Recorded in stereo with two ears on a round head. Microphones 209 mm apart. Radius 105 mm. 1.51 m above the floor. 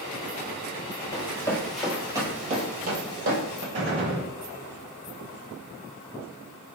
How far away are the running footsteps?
About 1.9 m.